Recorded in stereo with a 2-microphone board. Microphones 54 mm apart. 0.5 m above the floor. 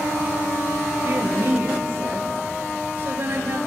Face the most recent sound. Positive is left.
turn(degrees=-50)  # may be behind; listen again after turning